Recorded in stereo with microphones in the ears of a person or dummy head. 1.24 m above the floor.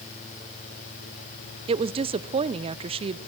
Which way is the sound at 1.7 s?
30° right (ahead or behind).